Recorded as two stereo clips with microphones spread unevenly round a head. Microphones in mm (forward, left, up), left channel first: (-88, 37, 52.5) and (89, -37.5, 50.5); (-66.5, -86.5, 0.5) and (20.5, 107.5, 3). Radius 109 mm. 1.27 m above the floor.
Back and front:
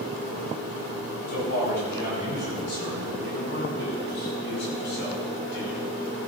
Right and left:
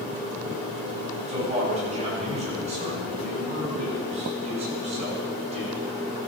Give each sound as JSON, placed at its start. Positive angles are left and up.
{"t": 1.3, "sound": "a man speaking", "azimuth_deg": 125, "distance_m": 8.0}